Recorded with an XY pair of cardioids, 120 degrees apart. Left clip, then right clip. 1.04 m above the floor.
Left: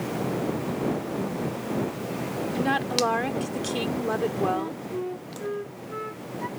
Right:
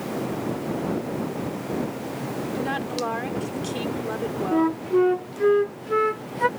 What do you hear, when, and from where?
2.5 s a woman speaking: 20° left
4.5 s a flute: 70° right